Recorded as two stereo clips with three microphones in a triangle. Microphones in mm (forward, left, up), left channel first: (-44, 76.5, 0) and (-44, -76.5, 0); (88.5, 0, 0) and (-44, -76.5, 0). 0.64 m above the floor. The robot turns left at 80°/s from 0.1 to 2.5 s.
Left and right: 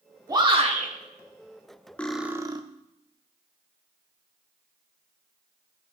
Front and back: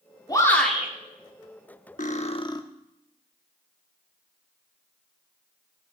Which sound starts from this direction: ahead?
Cutlery clinking, at 2.0 s.